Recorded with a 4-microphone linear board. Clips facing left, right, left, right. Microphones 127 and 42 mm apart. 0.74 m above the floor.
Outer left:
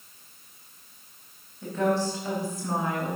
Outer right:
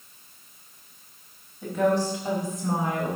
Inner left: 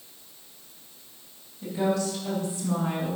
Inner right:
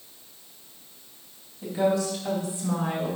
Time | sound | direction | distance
1.6 | a woman speaking | 10° right (ahead or behind) | 4 m